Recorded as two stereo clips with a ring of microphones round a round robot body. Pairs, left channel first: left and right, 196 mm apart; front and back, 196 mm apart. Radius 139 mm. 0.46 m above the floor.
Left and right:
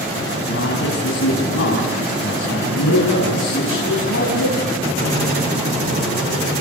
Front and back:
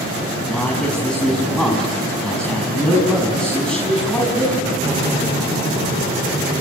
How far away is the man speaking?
About 5 m.